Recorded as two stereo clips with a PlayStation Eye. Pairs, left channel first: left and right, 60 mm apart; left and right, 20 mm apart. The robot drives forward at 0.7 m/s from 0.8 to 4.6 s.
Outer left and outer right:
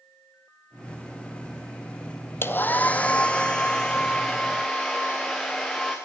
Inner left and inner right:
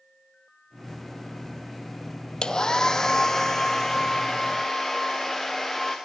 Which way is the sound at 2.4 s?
40° left (ahead or behind).